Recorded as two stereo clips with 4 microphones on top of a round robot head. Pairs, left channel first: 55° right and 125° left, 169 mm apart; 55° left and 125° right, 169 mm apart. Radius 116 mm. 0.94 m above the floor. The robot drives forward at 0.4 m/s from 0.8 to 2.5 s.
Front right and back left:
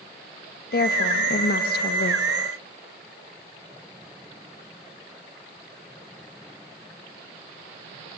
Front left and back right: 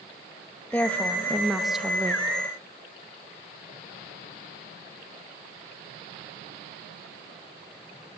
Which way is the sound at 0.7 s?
25° right.